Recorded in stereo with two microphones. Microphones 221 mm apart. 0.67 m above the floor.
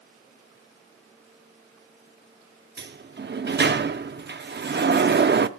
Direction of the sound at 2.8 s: 50° right (ahead or behind).